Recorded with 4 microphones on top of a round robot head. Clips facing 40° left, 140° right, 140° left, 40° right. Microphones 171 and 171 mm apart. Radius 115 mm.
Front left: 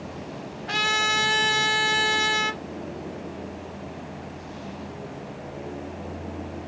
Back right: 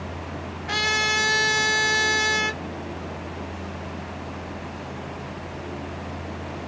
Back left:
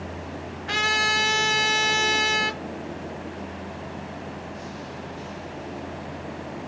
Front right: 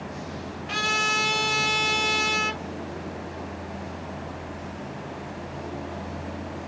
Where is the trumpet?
145° left, 1.8 m.